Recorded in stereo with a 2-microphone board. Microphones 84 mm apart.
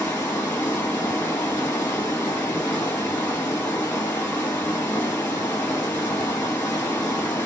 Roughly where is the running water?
Left.